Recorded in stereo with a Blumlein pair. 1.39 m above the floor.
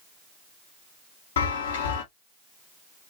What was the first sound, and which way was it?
A chime, 60° left.